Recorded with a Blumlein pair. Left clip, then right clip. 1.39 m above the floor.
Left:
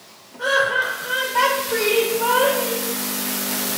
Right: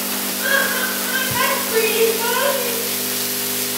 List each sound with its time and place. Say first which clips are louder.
0.4 s laughter: left 1 dB; 65° right, 1.7 m